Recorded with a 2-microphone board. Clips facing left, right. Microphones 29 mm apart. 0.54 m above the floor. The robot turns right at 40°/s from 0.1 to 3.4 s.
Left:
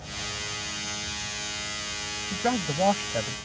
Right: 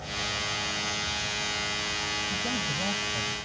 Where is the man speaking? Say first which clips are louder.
Left 2 dB; 60° left; by 3.4 s 105° left.